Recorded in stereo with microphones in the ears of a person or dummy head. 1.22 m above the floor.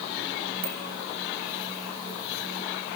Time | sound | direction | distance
0.6 | a bicycle bell | 45° right (ahead or behind) | 4.5 m